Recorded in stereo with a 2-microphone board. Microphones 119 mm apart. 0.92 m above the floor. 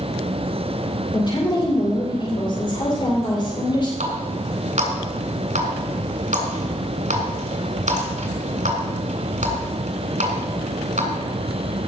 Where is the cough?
No cough in this recording.